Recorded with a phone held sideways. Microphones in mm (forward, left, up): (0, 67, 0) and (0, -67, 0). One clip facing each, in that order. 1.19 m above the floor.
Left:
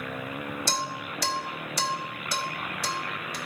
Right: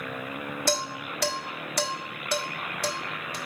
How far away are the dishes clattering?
About 1.5 m.